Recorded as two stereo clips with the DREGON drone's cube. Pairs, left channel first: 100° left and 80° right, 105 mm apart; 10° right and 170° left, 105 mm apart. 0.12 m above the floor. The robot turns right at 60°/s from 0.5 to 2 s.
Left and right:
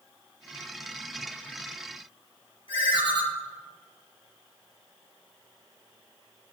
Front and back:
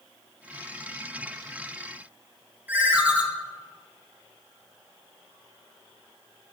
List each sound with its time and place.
2.7 s a ringtone: 100° left, 1.4 m